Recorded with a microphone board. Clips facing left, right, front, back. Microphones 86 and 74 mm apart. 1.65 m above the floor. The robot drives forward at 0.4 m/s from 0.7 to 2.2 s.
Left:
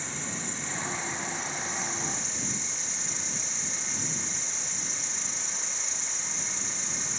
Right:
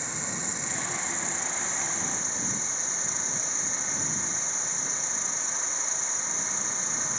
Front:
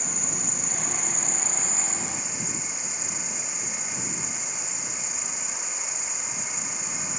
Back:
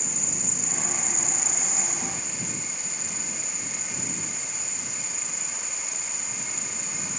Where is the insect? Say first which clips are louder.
Right 1 dB, front 2 dB; 25° right, 1.0 m; by 7.2 s 60° right, 0.6 m.